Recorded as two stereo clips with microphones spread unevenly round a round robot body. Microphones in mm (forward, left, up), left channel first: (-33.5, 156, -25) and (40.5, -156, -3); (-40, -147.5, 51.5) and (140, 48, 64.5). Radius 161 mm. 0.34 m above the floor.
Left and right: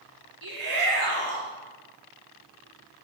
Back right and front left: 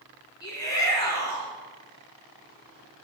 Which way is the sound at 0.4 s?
60° right.